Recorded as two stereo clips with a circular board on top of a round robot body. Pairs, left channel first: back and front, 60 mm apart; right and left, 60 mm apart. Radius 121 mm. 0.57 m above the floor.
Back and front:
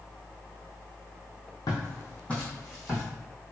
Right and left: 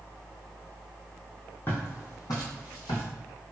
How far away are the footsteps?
About 1.4 m.